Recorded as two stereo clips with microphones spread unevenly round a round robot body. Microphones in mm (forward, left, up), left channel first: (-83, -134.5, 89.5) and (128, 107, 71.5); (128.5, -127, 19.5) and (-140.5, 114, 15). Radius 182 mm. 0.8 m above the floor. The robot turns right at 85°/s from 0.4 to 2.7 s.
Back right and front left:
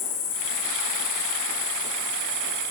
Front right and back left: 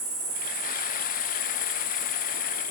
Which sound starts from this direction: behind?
An insect, at 0.0 s.